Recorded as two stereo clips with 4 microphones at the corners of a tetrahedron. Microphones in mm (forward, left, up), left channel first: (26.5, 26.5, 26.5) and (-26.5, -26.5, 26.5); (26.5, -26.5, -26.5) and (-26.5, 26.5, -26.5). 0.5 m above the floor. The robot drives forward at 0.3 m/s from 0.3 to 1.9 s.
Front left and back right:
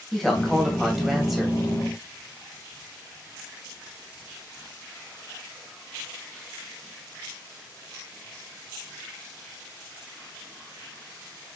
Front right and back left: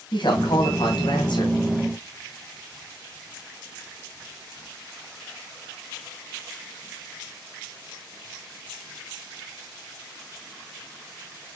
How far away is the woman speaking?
About 3 m.